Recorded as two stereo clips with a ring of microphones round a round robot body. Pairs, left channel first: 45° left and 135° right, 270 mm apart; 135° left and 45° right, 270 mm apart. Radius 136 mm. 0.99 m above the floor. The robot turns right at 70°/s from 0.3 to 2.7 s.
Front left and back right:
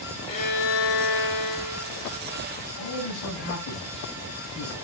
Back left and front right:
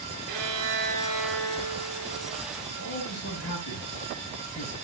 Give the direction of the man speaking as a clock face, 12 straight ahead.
9 o'clock.